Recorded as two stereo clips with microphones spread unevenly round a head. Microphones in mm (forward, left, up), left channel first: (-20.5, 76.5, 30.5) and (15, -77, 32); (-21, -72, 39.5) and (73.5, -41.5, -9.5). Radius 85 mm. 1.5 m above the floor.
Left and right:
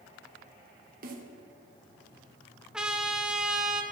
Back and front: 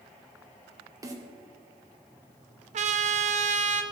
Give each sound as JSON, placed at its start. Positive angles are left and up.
{"t": 1.0, "sound": "a snare drum", "azimuth_deg": -40, "distance_m": 1.9}
{"t": 2.7, "sound": "a trumpet", "azimuth_deg": 10, "distance_m": 0.9}